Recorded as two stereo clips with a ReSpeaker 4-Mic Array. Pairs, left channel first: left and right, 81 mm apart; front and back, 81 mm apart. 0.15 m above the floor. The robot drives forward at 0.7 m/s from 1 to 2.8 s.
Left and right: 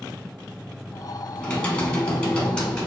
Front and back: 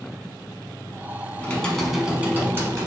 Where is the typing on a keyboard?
30° left, 0.9 m; by 2.9 s 165° left, 1.0 m.